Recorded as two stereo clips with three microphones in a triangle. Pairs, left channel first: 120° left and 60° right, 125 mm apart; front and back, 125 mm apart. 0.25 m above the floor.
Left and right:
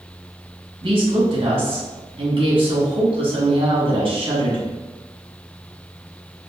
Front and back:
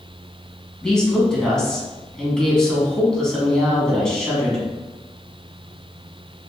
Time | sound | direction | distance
0.8 | a woman speaking | 85° right | 1.9 m